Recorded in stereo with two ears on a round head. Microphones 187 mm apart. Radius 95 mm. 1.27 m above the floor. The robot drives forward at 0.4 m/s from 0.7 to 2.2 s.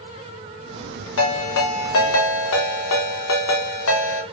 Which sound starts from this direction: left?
A ringtone, at 1.2 s.